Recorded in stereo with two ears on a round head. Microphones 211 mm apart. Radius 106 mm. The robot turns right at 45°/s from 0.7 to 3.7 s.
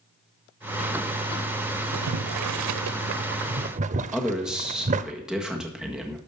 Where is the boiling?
70° right (ahead or behind), 0.6 m; by 5.1 s 30° right (ahead or behind), 0.6 m.